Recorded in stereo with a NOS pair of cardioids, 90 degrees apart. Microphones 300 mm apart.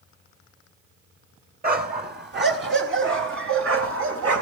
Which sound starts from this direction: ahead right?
A dog barking, at 1.6 s.